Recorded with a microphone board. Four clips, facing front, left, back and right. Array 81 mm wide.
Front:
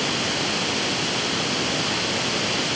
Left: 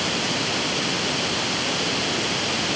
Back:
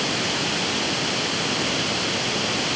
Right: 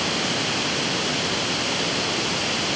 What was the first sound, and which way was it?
Only background noise.